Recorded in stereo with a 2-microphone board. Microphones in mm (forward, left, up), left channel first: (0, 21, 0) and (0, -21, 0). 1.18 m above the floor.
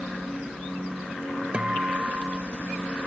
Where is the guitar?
30° right (ahead or behind).